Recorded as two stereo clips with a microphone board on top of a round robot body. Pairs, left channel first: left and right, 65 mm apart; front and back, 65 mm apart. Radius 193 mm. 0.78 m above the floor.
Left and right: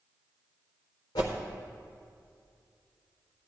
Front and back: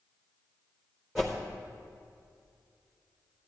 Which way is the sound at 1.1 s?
95° left.